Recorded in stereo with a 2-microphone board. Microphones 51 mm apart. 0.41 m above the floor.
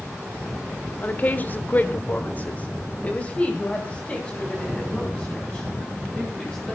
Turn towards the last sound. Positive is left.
turn(degrees=15)  # may be behind; listen again after turning